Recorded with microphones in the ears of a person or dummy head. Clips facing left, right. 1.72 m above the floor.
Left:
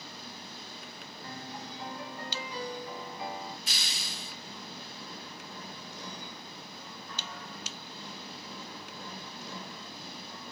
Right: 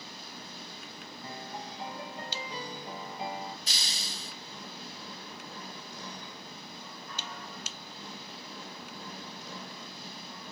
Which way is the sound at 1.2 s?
25° right (ahead or behind).